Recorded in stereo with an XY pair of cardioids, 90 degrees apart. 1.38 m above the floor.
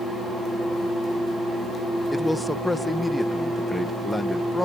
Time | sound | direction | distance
2.1 | a man speaking | 10° left | ?